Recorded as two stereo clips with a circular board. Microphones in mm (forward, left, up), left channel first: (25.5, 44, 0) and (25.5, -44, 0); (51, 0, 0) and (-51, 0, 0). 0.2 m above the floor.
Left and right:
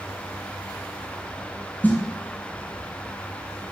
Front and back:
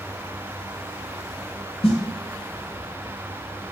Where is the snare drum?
20° left, 0.6 m.